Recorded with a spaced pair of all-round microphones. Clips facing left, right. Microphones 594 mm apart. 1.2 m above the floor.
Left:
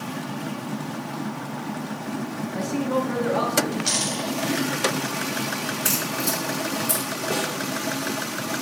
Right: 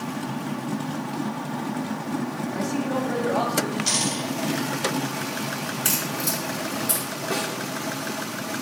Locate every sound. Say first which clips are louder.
2.5 s a man speaking: left 3 dB; 25° left (ahead or behind), 2 m; by 3.8 s 40° left (ahead or behind), 2.5 m
3.9 s a dropped coin: right 1 dB; 30° right (ahead or behind), 3.5 m
5.8 s a crack: left 2 dB; 15° right (ahead or behind), 2.5 m
7.3 s a snare drum: left 1 dB; 60° left (ahead or behind), 2.0 m